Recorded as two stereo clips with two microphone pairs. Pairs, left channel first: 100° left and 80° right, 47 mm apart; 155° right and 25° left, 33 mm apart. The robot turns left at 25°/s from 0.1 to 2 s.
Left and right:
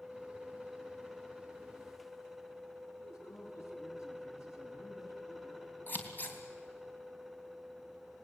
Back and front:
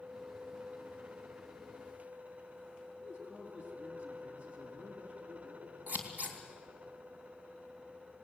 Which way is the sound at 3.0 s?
85° left.